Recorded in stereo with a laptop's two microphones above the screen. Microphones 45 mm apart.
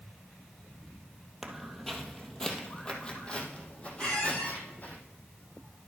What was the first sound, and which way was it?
Footsteps, 5° right (ahead or behind).